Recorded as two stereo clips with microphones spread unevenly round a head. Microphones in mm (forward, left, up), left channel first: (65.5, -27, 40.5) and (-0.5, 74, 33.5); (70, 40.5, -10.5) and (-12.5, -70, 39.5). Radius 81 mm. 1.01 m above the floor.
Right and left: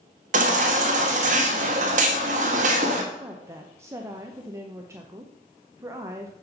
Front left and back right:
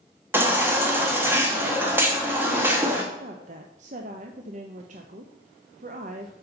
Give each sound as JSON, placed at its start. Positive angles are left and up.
{"t": 0.3, "sound": "a baby crying", "azimuth_deg": 155, "distance_m": 1.1}
{"t": 3.1, "sound": "a woman speaking", "azimuth_deg": -175, "distance_m": 0.7}